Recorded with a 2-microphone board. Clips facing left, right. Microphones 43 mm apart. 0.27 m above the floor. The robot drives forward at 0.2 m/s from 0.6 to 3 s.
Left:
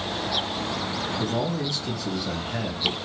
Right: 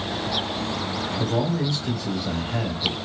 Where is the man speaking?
15° right (ahead or behind), 1.1 m; by 2.9 s 20° right (ahead or behind), 0.9 m.